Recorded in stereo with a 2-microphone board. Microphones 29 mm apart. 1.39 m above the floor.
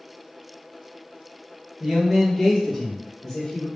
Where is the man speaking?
20° right (ahead or behind), 1.3 m; by 3.7 s 10° left (ahead or behind), 2 m.